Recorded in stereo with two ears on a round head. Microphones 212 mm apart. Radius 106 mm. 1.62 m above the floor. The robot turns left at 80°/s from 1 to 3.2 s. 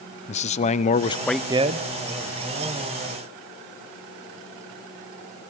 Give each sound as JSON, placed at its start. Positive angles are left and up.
{"t": 0.3, "sound": "a man speaking", "azimuth_deg": 25, "distance_m": 0.8}